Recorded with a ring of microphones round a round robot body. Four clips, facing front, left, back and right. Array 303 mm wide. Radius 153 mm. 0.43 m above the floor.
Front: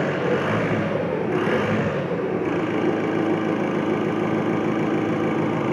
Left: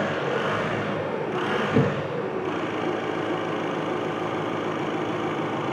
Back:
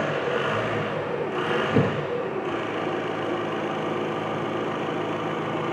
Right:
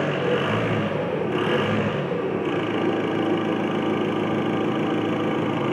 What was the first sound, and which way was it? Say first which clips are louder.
An engine running: right 3 dB, front 3 dB; 30° right.